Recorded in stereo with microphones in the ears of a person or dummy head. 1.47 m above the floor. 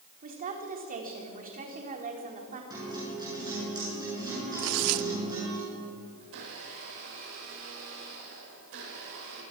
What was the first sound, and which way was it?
A woman speaking, 40° right (ahead or behind).